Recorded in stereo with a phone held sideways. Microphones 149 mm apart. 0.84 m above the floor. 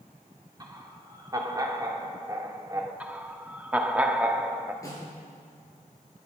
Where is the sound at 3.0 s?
10° right (ahead or behind), 1.4 m.